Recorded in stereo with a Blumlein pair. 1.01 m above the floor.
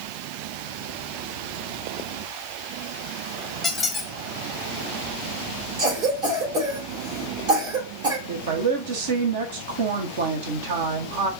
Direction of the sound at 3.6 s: 15° left.